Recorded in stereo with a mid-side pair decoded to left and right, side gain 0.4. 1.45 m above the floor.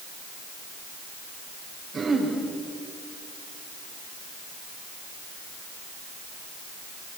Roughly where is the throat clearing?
Ahead right.